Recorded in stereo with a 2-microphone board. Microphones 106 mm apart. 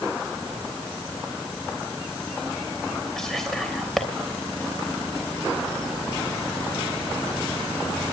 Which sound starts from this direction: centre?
Whispering, at 3.2 s.